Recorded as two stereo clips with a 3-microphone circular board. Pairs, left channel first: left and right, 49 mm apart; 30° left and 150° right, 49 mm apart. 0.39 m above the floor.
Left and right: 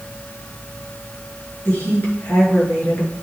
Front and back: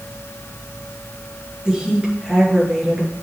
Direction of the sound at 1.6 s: 135° left.